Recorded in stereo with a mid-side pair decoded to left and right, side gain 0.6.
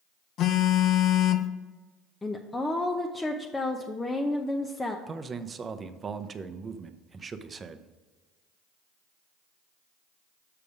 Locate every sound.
0.4 s a phone buzzing: 55° left, 0.6 m
2.2 s a woman speaking: 20° left, 0.7 m
5.1 s a man speaking: 30° right, 0.7 m